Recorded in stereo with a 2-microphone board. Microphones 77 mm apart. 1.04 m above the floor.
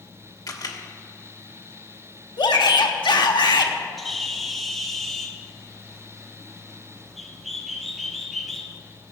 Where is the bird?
Centre (ahead or behind), 1.0 m.